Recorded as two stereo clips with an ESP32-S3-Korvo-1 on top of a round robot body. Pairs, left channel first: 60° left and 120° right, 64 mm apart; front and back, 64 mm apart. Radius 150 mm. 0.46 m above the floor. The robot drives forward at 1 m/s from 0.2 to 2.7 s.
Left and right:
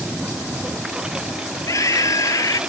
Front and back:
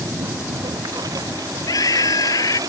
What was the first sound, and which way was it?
A lawn mower, 160° left.